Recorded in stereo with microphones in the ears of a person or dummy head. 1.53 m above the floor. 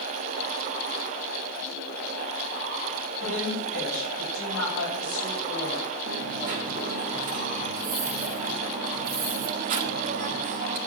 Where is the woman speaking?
75° left (ahead or behind), 7.5 m.